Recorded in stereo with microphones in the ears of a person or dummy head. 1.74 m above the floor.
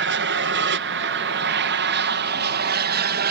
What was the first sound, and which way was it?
An aircraft, 55° right (ahead or behind).